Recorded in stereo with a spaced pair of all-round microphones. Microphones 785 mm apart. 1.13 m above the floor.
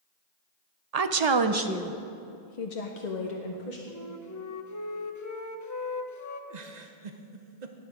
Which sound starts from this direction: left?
A flute, at 3.9 s.